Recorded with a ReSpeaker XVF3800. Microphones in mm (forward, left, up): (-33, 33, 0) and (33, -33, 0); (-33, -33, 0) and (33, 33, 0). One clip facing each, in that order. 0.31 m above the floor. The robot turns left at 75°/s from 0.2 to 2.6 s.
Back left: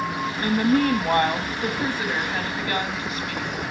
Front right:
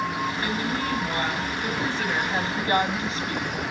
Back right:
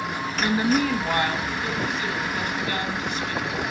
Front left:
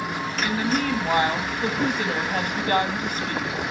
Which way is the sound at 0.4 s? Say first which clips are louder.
Back left 7 dB, back right 3 dB; 175° left.